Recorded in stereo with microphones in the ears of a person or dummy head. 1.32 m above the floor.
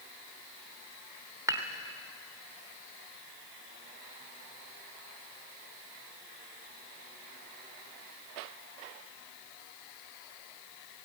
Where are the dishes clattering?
20° right (ahead or behind), 1.5 m.